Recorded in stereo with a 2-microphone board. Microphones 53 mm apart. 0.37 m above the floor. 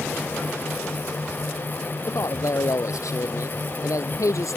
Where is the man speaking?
80° left; by 4.6 s 85° left.